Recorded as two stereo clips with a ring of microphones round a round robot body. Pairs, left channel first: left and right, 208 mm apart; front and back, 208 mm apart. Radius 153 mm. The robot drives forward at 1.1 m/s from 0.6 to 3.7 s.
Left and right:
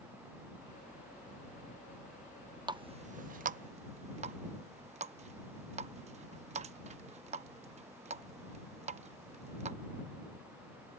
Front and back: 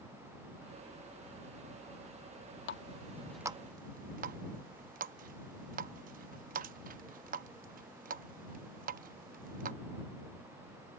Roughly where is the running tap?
Ahead.